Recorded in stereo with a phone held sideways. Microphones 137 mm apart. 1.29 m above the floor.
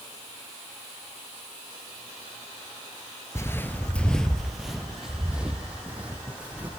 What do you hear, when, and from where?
3.4 s footsteps: 20° left (ahead or behind), 1.3 m; by 6.7 s 10° right (ahead or behind), 4 m